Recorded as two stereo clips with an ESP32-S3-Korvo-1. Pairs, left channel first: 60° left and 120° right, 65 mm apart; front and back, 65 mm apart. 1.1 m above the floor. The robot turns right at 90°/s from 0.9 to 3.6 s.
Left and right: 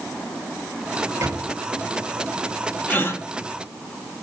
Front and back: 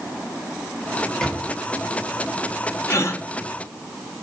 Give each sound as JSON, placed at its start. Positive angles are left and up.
{"t": 1.2, "sound": "a microwave", "azimuth_deg": -85, "distance_m": 1.2}
{"t": 2.9, "sound": "a gasp", "azimuth_deg": 5, "distance_m": 0.8}